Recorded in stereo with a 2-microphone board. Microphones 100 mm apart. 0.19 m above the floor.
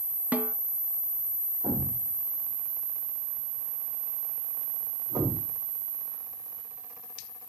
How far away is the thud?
About 4.5 m.